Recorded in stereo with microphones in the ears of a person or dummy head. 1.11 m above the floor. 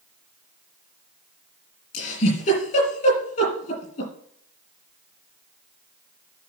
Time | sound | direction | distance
1.9 | a giggle | 45° left (ahead or behind) | 5.5 m